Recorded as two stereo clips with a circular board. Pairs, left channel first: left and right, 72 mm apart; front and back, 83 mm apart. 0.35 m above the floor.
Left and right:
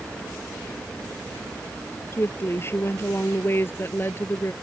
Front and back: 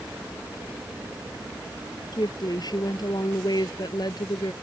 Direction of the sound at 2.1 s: 35° left.